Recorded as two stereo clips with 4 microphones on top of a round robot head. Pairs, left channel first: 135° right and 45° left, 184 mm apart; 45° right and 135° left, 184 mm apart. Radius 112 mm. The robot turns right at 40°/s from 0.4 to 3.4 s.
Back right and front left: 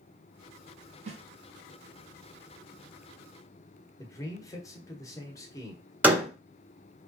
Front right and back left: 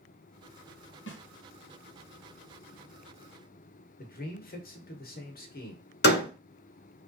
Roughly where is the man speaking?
Right.